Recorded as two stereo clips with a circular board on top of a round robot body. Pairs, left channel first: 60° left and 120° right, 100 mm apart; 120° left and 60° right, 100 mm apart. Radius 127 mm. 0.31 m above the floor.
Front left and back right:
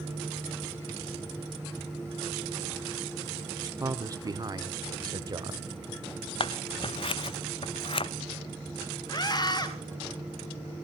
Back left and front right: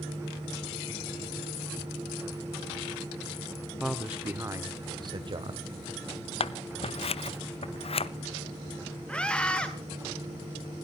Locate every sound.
3.8 s a man speaking: 150° right, 1.4 m; by 5.7 s 75° right, 2.5 m
6.4 s scissors: 95° left, 0.6 m
9.1 s a scream: 45° left, 1.9 m